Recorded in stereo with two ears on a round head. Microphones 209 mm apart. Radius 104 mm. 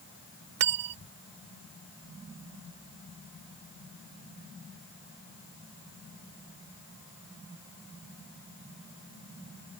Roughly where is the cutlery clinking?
Right.